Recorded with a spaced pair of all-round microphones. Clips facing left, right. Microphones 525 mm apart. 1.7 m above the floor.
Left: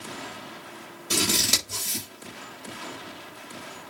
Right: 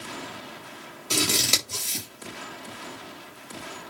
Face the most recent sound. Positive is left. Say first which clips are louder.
# even
turn(degrees=40)  # may be behind; listen again after turning